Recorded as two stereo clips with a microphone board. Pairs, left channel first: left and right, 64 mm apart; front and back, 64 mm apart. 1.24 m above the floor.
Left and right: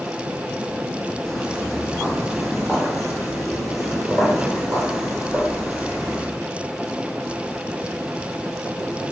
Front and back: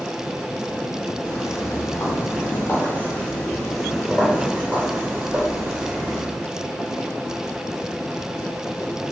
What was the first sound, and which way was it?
Footsteps, 5° left.